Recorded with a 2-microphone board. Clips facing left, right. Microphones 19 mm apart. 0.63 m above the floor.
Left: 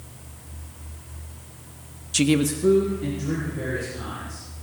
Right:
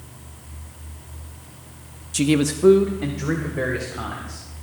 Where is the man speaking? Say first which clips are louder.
Right 1 dB; 20° left (ahead or behind), 0.5 m; by 4.4 s 75° right (ahead or behind), 3 m.